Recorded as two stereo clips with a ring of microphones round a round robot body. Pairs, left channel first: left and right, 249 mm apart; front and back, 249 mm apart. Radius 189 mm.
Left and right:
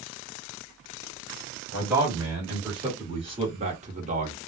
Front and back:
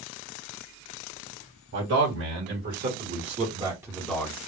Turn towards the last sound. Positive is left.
turn(degrees=-70)